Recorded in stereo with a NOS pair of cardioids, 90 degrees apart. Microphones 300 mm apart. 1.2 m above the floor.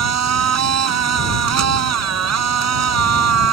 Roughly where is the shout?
I don't hear a shout.